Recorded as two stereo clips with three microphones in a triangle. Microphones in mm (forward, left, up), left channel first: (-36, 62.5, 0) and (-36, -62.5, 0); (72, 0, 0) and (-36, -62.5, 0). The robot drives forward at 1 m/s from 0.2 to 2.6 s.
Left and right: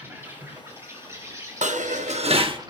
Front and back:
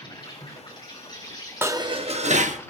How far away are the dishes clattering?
About 0.8 m.